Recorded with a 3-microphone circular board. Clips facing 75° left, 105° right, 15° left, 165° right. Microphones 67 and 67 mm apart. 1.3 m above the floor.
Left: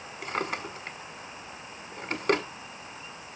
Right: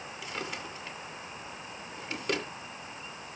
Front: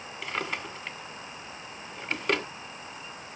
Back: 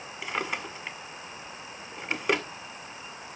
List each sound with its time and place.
0.2 s a drawer: 120° left, 1.9 m